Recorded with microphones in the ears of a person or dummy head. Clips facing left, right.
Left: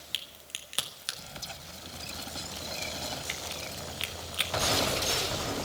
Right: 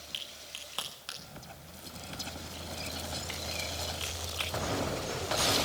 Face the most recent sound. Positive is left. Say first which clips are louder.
# right 1 dB
turn(degrees=25)  # may be behind; listen again after turning